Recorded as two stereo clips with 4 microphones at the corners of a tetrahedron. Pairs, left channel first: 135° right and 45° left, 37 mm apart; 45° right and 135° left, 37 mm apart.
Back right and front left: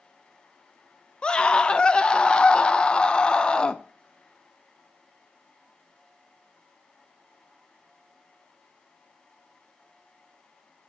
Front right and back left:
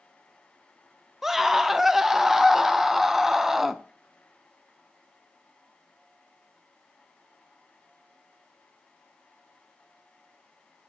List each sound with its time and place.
1.2 s a scream: 155° right, 0.6 m